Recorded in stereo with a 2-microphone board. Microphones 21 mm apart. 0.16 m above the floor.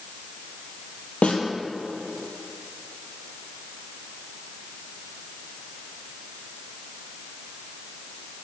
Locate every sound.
1.2 s a snare drum: 65° left (ahead or behind), 2 m